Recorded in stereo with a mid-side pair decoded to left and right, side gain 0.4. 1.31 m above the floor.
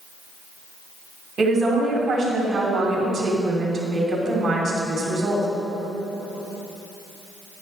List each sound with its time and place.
1.4 s a woman speaking: 45° right, 3 m